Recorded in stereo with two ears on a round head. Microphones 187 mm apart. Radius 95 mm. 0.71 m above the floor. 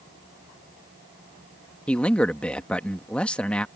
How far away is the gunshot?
I don't hear a gunshot.